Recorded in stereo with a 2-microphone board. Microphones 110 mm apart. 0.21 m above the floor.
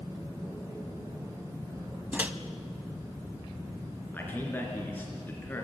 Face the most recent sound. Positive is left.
turn(degrees=20)  # may be behind; listen again after turning